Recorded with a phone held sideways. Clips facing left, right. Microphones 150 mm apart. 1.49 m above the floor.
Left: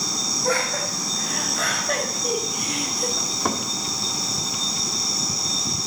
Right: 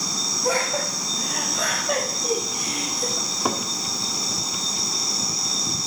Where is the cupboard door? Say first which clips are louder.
Even; 5° right (ahead or behind), 1.4 m.